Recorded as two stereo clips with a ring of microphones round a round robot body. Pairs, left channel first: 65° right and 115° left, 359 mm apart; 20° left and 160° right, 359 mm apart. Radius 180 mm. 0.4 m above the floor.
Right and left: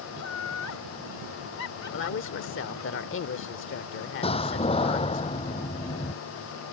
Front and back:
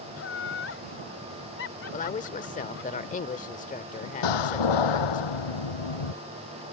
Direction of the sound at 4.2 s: 5° left.